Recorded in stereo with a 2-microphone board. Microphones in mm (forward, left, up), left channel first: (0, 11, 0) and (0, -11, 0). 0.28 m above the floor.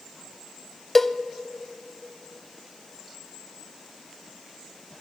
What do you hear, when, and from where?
0.9 s a cowbell: 15° left (ahead or behind), 0.6 m